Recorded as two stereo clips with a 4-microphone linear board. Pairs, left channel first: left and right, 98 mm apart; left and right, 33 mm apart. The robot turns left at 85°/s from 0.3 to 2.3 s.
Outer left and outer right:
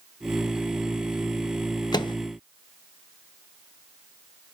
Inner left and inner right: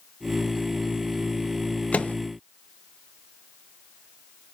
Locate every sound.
1.9 s a microwave: 45° left (ahead or behind), 0.6 m; by 2.1 s 55° left (ahead or behind), 0.6 m